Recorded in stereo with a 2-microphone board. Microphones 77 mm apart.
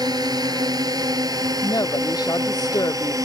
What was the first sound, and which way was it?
A drone, 60° right (ahead or behind).